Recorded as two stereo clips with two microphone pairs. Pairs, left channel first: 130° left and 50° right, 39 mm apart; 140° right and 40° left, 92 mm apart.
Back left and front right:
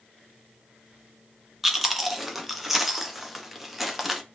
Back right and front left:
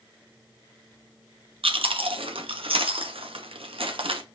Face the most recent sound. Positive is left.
turn(degrees=35)